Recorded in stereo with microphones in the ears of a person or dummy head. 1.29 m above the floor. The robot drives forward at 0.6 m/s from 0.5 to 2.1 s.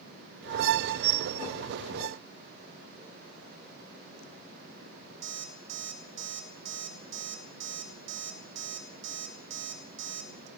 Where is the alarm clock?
70° right (ahead or behind), 1.7 m.